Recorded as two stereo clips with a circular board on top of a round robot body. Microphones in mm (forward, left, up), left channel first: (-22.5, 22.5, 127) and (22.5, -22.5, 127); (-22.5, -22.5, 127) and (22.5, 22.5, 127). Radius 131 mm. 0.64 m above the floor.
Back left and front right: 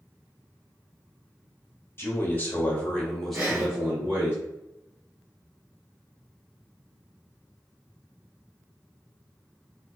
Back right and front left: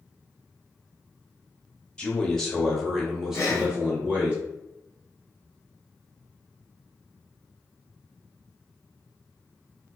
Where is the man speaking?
155° left, 1.3 m; by 4.3 s 5° right, 1.2 m.